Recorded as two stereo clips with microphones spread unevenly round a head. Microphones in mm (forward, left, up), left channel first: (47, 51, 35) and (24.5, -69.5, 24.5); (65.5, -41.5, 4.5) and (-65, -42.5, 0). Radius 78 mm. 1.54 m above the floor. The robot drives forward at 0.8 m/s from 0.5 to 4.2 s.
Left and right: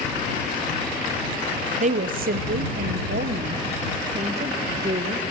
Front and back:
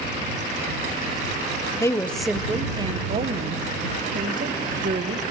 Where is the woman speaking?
65° right, 0.9 m; by 5.2 s 155° right, 1.8 m.